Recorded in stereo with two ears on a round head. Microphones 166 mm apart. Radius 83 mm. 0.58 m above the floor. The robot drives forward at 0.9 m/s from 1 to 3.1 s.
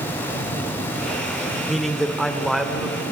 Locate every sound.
1.7 s a man speaking: centre (ahead or behind), 1.0 m